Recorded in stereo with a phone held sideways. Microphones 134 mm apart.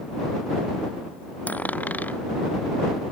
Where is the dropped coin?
15° left (ahead or behind).